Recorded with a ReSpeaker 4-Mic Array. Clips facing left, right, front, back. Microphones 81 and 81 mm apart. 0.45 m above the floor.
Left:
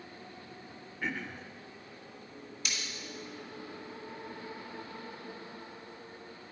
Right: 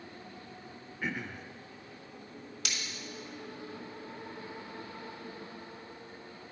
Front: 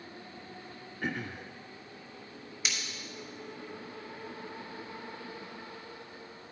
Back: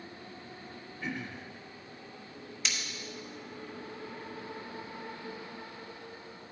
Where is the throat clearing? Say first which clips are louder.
Even, front 3 dB; 5° right, 0.5 m.